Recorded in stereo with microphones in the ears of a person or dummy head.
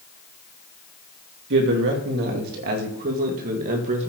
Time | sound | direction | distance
1.5 | a man speaking | 65° right (ahead or behind) | 3 m